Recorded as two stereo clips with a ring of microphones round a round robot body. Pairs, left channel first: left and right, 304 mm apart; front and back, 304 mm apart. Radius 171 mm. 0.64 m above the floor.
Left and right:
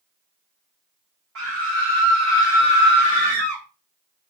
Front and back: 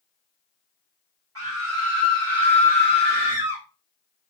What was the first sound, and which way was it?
A scream, 135° right.